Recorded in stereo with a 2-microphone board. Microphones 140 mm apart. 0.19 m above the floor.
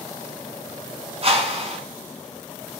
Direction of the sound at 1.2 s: 45° right (ahead or behind).